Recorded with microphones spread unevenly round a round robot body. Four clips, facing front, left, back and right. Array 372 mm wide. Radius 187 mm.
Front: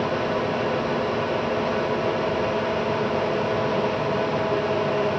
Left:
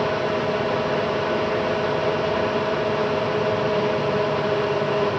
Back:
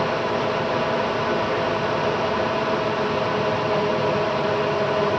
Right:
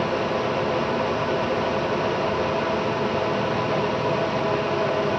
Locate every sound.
Only background noise.